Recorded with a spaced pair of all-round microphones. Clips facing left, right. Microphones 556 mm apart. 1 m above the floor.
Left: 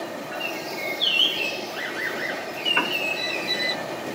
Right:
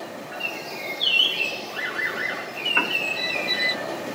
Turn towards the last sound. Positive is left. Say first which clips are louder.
# even
turn(degrees=0)  # may be behind; listen again after turning